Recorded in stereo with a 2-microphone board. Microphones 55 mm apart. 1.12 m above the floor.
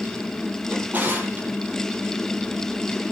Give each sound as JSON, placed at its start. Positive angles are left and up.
{"t": 0.7, "sound": "a drawer", "side_deg": -30, "distance_m": 7.0}